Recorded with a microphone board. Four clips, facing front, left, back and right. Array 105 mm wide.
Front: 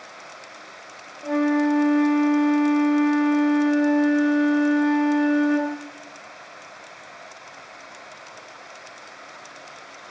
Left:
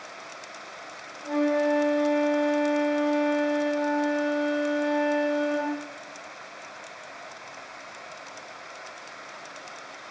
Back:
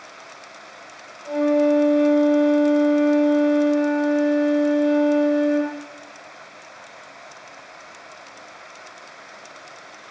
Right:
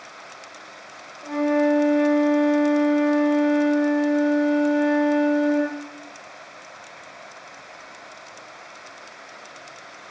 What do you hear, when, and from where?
1.2 s a flute: 10° right, 5 m